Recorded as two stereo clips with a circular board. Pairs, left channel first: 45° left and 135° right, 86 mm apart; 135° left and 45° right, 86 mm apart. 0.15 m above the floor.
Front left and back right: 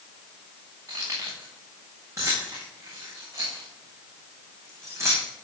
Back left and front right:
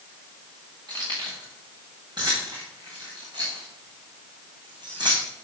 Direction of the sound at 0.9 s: 85° right.